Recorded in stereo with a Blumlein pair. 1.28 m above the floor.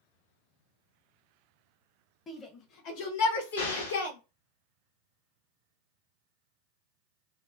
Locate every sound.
2.3 s a shout: 25° left, 0.9 m; by 4.2 s 75° left, 1.5 m
3.6 s an explosion: 60° left, 1.0 m